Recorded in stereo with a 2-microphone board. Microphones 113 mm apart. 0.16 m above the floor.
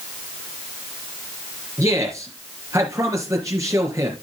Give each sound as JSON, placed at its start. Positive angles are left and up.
{"t": 1.8, "sound": "a man speaking", "side_deg": -30, "distance_m": 3.5}